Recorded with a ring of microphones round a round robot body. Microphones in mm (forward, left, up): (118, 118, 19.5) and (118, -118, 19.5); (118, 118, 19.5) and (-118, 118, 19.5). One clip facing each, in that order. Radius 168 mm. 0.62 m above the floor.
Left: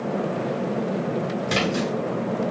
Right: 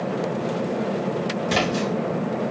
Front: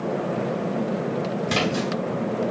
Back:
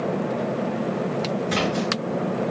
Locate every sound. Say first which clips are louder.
1.5 s a splash: right 1 dB, even; 15° left, 2.5 m